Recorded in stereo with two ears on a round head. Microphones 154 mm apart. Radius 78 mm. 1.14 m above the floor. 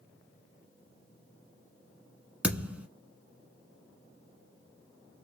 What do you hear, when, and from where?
2.4 s a thud: 10° right (ahead or behind), 1.3 m